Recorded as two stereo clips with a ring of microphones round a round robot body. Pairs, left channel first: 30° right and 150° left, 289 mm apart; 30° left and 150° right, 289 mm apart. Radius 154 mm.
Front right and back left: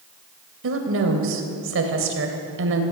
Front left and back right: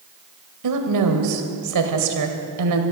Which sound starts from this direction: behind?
A woman speaking, at 0.6 s.